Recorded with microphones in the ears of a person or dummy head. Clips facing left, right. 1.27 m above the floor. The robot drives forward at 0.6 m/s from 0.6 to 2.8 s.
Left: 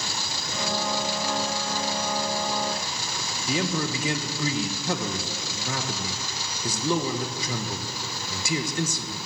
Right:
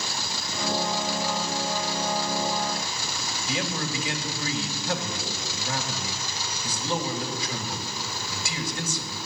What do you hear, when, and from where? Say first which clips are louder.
3.5 s a man speaking: left 4 dB; 75° left (ahead or behind), 1.3 m